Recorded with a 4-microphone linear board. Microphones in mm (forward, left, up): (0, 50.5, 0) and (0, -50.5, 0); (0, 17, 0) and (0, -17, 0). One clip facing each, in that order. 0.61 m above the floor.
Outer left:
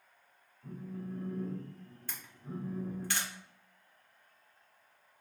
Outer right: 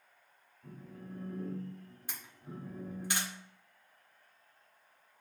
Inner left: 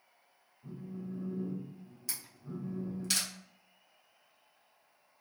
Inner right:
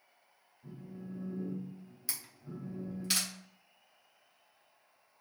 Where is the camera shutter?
15° right (ahead or behind), 1.5 m.